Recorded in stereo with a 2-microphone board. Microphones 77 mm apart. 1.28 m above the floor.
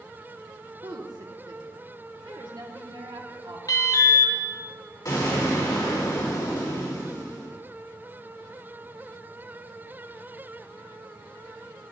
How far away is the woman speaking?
About 1.4 m.